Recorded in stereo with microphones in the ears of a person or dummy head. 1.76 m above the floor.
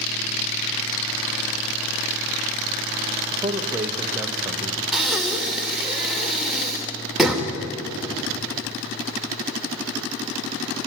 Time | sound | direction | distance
3.3 | a man speaking | 15° right (ahead or behind) | 1.1 m
4.9 | breathing | centre (ahead or behind) | 2.5 m